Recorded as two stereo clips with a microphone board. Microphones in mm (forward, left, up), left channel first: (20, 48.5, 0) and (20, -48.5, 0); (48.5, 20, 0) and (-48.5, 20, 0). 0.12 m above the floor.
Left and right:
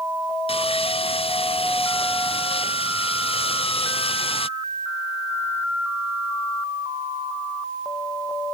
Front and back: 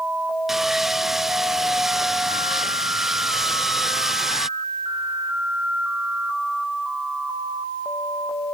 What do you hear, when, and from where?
0.5 s sawing: 95° left